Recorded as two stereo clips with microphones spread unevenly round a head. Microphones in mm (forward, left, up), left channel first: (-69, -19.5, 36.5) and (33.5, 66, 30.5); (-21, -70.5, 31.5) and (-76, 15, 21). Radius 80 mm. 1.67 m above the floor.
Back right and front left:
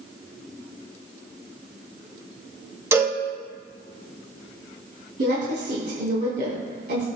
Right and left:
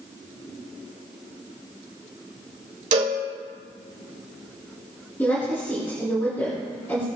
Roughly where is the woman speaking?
Ahead.